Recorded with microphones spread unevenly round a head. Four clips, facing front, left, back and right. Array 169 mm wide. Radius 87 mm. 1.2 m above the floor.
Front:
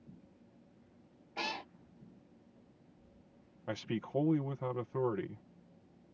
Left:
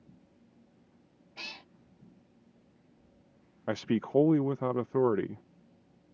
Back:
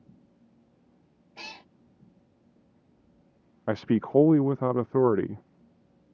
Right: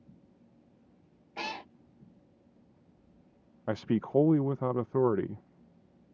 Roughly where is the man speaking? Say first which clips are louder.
Even, back 13 dB; behind.